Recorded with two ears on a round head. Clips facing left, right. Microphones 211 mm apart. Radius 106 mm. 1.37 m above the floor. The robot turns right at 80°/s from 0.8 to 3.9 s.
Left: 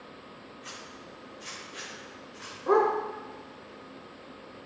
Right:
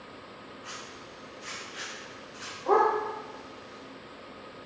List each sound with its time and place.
0.6 s a zipper: 65° left (ahead or behind), 3.5 m; by 2.6 s 25° right (ahead or behind), 3.5 m
2.7 s a dog barking: 25° left (ahead or behind), 1.5 m; by 2.9 s 40° left (ahead or behind), 1.5 m